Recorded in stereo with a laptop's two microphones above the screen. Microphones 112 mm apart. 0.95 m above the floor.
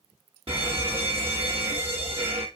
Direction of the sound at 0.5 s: 55° right (ahead or behind).